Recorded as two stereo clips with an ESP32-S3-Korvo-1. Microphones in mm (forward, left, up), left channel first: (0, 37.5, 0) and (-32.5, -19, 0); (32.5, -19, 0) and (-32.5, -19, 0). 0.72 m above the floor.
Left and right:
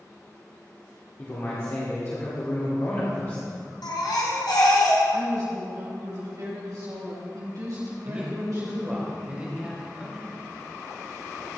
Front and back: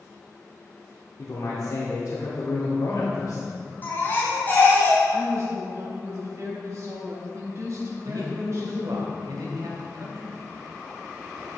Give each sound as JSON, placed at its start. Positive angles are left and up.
{"t": 1.2, "sound": "a man speaking", "azimuth_deg": 25, "distance_m": 2.0}
{"t": 3.8, "sound": "a baby crying", "azimuth_deg": 60, "distance_m": 2.5}
{"t": 5.1, "sound": "a woman speaking", "azimuth_deg": -140, "distance_m": 4.0}
{"t": 8.1, "sound": "a man speaking", "azimuth_deg": 170, "distance_m": 3.0}